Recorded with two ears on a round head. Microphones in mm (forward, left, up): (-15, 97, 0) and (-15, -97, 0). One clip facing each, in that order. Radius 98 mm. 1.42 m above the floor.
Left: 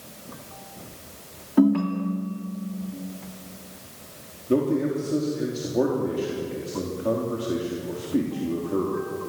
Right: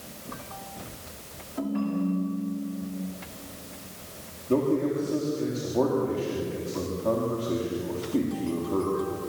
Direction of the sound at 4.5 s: 15° left (ahead or behind).